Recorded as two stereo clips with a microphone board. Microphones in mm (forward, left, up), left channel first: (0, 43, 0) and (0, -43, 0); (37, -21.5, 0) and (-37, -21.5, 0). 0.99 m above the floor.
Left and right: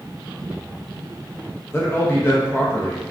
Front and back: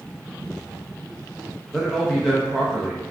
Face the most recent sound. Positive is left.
turn(degrees=80)